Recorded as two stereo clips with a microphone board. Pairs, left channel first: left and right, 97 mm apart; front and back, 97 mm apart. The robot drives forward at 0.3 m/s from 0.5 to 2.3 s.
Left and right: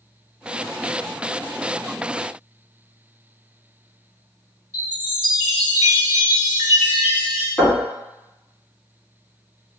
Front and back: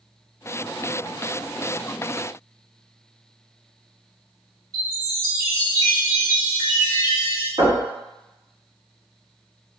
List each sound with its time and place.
4.7 s a chime: 135° right, 1.8 m
7.6 s knocking: 170° left, 1.6 m